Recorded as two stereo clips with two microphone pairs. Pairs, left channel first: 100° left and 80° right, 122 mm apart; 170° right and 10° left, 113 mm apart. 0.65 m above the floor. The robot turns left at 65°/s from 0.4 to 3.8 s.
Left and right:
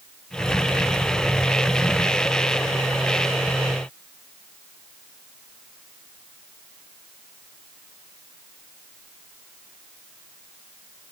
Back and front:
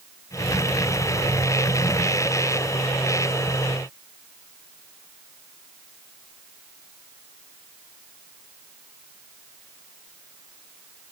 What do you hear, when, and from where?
Only background noise.